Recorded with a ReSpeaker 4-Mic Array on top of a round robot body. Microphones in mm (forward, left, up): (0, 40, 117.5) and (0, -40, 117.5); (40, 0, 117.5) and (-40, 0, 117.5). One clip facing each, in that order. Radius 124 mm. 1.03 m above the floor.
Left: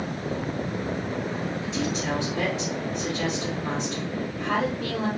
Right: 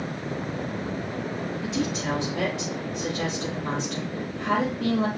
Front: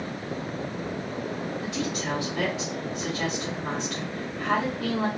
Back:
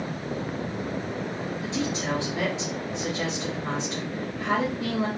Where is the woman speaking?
115° right, 1.9 m.